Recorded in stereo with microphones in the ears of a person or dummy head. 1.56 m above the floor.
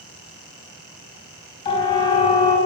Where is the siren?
30° left (ahead or behind), 3.5 m.